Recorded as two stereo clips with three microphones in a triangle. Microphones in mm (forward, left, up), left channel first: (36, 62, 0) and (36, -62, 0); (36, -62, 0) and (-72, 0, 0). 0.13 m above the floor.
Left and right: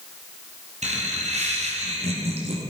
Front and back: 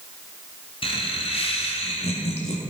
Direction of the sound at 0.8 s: 70° right.